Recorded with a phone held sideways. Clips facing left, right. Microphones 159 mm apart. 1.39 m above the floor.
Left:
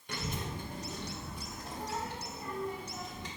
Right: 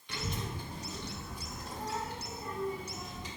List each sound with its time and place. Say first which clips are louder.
0.1 s a child speaking: even; 45° left (ahead or behind), 1.0 m; by 3.3 s 60° left (ahead or behind), 2.5 m